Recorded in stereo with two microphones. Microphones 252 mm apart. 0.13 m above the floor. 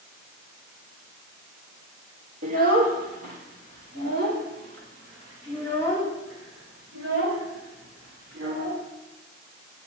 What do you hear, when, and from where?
2.4 s a child speaking: 70° right (ahead or behind), 2.5 m; by 8.8 s 60° right (ahead or behind), 6.5 m